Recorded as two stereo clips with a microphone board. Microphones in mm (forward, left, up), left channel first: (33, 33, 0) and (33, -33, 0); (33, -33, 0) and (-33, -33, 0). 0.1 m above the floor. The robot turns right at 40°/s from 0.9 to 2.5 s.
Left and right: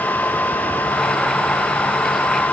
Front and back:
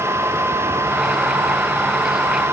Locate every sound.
Only background noise.